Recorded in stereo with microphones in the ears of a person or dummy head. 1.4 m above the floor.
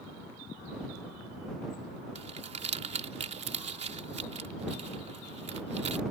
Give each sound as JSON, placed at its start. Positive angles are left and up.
{"t": 2.1, "sound": "crumpling", "side_deg": -35}